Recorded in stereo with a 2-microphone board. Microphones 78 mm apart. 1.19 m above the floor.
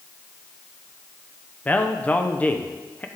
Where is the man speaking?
20° left (ahead or behind), 0.6 m.